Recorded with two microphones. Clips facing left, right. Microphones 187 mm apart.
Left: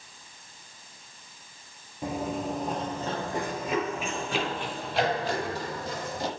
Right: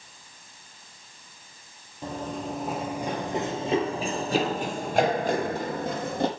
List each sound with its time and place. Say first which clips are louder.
2.0 s running footsteps: left 2 dB; 10° left (ahead or behind), 1.4 m; by 6.3 s 60° right (ahead or behind), 2.5 m